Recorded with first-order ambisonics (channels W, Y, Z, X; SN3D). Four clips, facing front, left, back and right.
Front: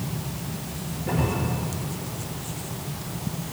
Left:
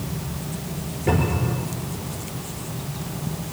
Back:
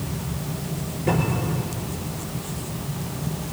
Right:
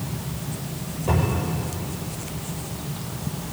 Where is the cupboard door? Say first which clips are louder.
Left 2 dB, back 3 dB; 115° left, 6 m.